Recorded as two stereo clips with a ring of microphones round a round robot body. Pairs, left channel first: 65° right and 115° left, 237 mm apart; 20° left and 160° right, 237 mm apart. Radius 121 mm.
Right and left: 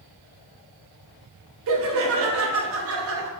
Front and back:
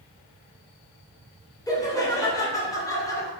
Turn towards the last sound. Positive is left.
turn(degrees=100)